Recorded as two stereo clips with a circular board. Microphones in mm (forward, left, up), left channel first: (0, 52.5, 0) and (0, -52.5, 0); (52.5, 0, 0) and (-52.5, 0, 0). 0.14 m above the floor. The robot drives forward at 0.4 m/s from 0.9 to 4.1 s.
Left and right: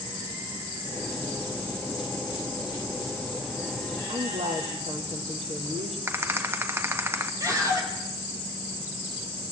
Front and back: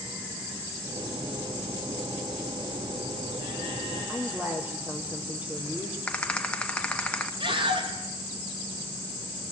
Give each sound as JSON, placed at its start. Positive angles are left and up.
{"t": 4.1, "sound": "a woman speaking", "azimuth_deg": -105, "distance_m": 4.5}
{"t": 6.1, "sound": "a rattle", "azimuth_deg": -65, "distance_m": 1.6}
{"t": 7.4, "sound": "a scream", "azimuth_deg": -150, "distance_m": 5.5}